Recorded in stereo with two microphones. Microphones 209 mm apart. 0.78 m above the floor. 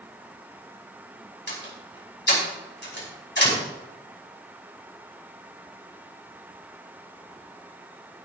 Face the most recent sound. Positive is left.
turn(degrees=60)  # may be behind; listen again after turning